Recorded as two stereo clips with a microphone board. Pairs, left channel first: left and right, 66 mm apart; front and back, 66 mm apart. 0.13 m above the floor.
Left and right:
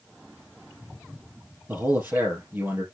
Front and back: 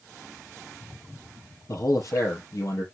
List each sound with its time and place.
1.7 s a man speaking: 35° right, 3.5 m